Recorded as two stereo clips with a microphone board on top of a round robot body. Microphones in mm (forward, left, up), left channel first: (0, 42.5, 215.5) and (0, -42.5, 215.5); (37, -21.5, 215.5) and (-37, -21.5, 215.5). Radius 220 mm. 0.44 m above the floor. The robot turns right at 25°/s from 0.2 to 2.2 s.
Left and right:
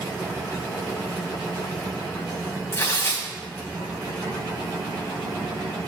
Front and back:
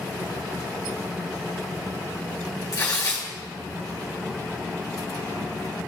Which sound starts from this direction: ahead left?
Tearing paper, at 2.7 s.